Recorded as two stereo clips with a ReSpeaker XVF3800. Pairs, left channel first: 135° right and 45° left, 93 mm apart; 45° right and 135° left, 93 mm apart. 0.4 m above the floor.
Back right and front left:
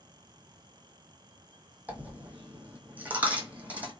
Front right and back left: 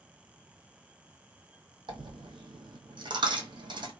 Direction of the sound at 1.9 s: 115° left.